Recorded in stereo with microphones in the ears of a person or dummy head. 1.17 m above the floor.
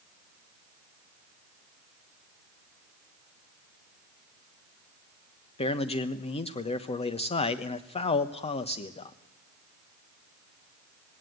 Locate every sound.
5.6 s a man speaking: 40° left (ahead or behind), 1.0 m